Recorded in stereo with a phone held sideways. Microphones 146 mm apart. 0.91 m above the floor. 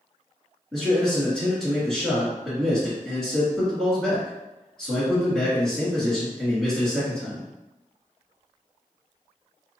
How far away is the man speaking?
About 1.8 m.